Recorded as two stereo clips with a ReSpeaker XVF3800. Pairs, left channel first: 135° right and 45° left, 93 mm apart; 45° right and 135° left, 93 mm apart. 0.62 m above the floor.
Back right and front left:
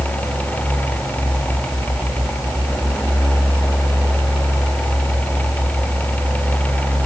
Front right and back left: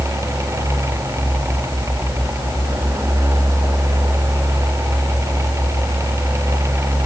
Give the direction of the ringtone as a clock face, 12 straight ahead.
No ringtone in this recording.